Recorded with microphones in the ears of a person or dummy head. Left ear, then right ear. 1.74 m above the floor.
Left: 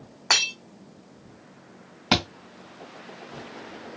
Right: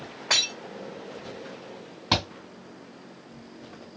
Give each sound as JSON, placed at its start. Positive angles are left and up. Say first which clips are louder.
{"t": 0.3, "sound": "breaking glass", "louder": "left 2 dB", "side_deg": 50, "distance_m": 2.5}
{"t": 2.1, "sound": "a thud", "louder": "left 2 dB", "side_deg": 15, "distance_m": 2.5}